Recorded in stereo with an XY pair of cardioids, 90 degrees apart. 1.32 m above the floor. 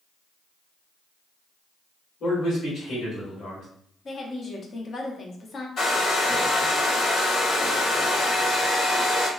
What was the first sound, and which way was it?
A man speaking, 65° left.